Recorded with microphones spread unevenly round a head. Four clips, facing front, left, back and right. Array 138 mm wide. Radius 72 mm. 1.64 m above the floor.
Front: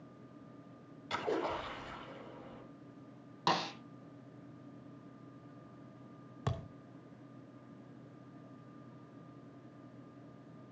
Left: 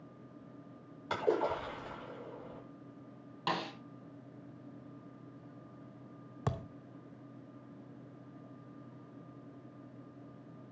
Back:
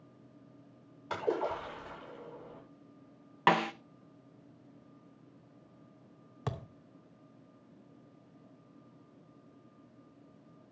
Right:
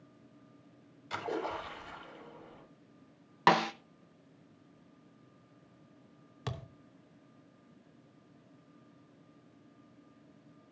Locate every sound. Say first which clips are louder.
1.1 s a splash: left 5 dB, back 3 dB; 115° left, 7 m
3.5 s a snare drum: right 10 dB, back 6 dB; 125° right, 0.8 m
6.5 s a thud: left 4 dB, back 1 dB; 110° left, 0.9 m